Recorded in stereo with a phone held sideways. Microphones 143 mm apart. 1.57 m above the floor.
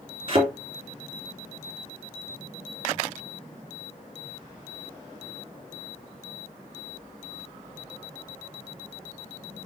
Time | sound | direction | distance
0.3 | a thud | 40° right (ahead or behind) | 3 m